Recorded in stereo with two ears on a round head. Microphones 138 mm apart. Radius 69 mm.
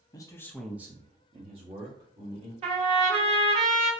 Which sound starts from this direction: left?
A man speaking, at 0.1 s.